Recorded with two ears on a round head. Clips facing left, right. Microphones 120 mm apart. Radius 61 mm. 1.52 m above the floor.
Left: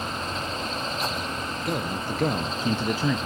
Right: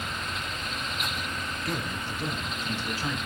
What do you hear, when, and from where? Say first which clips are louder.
1.6 s a man speaking: left 6 dB; 25° left (ahead or behind), 0.8 m; by 3.3 s 80° left, 0.7 m